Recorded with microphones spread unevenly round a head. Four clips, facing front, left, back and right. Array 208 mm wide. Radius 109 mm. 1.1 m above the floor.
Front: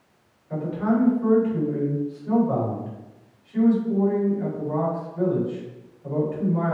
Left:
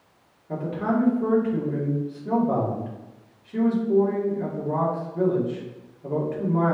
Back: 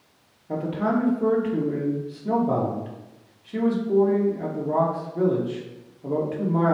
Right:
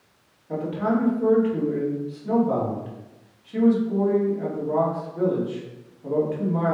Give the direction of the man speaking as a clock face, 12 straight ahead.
6 o'clock.